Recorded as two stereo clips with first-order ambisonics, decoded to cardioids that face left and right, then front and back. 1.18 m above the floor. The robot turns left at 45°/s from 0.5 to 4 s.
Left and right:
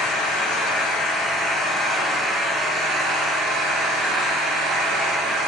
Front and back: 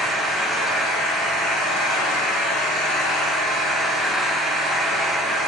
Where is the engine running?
75° left, 1.1 m; by 5.5 s 85° right, 1.1 m.